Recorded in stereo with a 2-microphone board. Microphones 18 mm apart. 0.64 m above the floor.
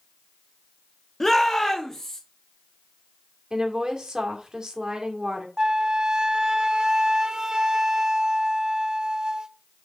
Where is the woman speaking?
45° right (ahead or behind), 2 m.